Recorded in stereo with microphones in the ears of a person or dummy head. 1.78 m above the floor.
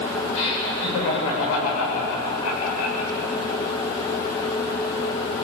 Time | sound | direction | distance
0.3 | laughter | 75° left (ahead or behind) | 8 m